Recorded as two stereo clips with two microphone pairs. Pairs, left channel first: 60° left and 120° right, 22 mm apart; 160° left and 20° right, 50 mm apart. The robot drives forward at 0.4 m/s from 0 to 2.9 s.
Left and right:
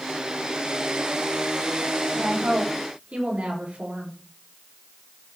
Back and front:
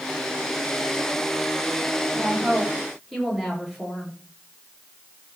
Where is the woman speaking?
105° right, 7.5 m.